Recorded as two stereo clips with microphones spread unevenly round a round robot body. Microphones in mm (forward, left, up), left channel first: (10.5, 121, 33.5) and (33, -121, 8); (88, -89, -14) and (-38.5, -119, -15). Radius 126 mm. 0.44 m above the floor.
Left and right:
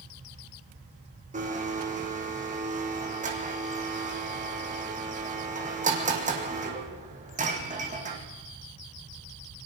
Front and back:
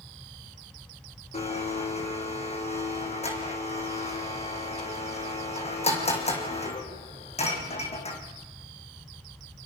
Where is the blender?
25° right, 4 m.